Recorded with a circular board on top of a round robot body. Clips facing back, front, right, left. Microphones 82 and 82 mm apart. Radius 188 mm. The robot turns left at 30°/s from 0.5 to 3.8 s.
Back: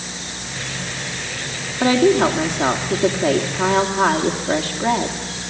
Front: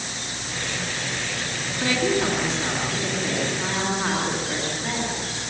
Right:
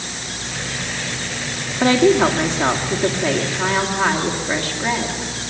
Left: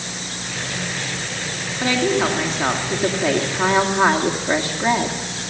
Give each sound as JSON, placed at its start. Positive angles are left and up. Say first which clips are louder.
{"t": 1.8, "sound": "a woman speaking", "louder": "back 8 dB, right 6 dB", "azimuth_deg": -150, "distance_m": 2.0}